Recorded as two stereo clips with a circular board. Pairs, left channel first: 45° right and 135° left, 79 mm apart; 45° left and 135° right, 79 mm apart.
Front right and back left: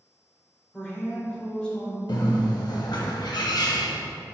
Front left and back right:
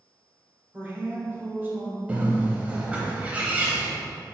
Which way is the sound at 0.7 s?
105° right.